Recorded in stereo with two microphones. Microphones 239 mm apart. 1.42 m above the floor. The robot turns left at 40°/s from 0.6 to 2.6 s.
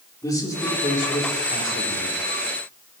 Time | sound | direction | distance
0.2 | a man speaking | 165° left | 2.5 m